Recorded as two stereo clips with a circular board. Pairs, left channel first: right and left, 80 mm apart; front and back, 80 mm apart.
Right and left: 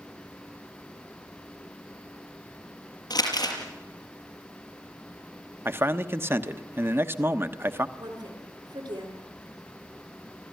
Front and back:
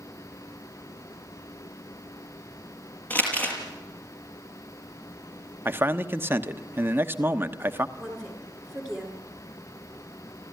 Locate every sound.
3.1 s crumpling: 70° right, 5.5 m
5.7 s a man speaking: 130° left, 1.1 m
8.0 s a woman speaking: 90° left, 9.5 m